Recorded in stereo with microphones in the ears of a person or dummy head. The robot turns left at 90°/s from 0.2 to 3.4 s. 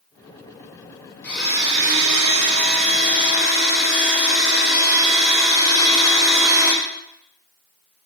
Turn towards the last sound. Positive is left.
turn(degrees=175)